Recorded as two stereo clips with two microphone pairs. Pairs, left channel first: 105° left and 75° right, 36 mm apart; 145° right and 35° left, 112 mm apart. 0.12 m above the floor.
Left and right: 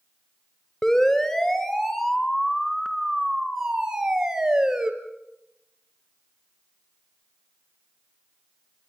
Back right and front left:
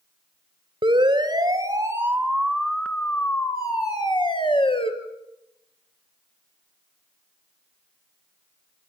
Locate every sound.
0.8 s a siren: 40° left, 3 m; by 4.9 s 145° right, 3 m